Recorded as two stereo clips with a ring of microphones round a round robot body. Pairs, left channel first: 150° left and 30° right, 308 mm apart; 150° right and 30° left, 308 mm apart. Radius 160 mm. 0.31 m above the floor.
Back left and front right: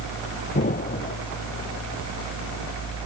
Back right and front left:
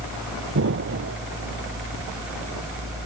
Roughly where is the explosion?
Left.